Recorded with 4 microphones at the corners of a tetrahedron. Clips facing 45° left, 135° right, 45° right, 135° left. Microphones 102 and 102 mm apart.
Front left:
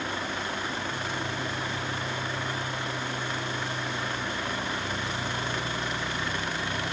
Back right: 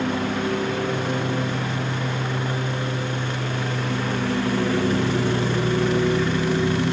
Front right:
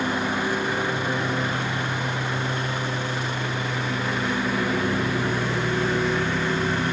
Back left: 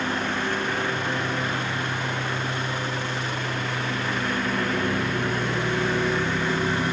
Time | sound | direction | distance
0.0 | a lawn mower | 125° right | ?